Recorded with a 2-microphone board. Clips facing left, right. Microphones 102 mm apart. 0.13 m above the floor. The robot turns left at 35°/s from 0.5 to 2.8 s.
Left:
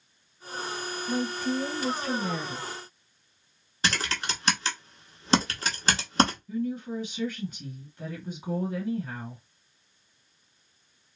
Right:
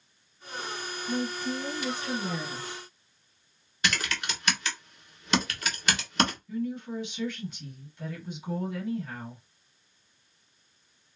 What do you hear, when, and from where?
1.1 s a woman speaking: 135° left, 1.3 m; by 2.7 s 80° left, 1.3 m
3.8 s typing on a keyboard: 30° left (ahead or behind), 0.9 m
6.5 s a woman speaking: 40° left (ahead or behind), 1.8 m